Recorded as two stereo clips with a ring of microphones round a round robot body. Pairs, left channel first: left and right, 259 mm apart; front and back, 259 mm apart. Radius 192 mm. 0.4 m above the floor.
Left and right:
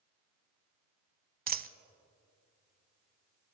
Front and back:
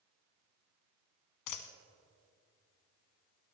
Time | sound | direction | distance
1.5 | a dropped coin | 30° right | 0.8 m